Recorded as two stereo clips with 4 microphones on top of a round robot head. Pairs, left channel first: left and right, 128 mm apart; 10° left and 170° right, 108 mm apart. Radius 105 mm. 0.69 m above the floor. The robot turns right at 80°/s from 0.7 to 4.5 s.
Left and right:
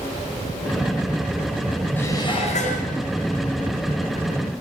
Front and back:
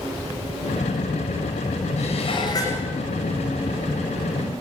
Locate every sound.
2.0 s dishes clattering: 15° left, 10 m; by 2.9 s 90° left, 10 m